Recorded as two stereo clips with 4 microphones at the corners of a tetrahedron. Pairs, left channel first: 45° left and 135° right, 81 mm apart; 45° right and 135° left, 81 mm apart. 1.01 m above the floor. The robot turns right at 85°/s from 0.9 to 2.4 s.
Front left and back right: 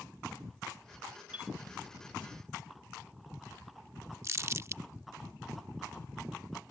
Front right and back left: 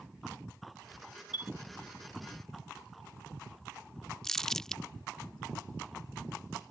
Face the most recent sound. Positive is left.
turn(degrees=-125)